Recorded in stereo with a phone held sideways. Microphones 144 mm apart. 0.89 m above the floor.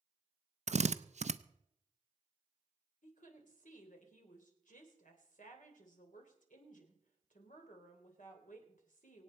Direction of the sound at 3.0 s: 65° left (ahead or behind).